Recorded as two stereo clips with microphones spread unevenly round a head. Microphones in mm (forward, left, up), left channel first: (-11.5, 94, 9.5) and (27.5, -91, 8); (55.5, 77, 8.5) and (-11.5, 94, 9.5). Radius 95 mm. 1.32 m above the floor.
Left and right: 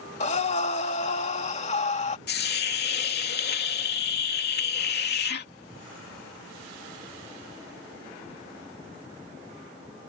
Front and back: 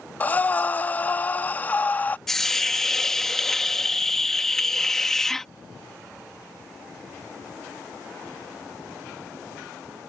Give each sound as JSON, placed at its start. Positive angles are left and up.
{"t": 0.2, "sound": "breathing", "azimuth_deg": 50}
{"t": 2.3, "sound": "a hiss", "azimuth_deg": 70}